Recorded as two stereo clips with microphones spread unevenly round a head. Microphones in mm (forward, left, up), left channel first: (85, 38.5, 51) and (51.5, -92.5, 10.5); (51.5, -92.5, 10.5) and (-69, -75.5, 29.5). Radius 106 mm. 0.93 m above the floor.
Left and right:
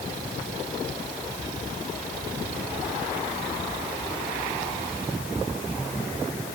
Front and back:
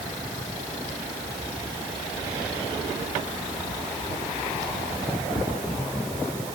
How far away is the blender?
I don't hear a blender.